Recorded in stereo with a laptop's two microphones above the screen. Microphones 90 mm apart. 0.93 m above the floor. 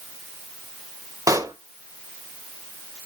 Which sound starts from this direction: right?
A pop, at 1.3 s.